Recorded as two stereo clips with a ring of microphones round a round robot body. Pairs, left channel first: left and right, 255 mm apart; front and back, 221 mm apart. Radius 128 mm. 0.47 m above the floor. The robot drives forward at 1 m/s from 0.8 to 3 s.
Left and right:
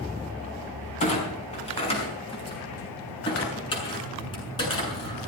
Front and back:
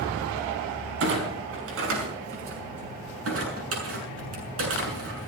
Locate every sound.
1.0 s a clunk: 155° left, 5 m; by 5.3 s 160° left, 7 m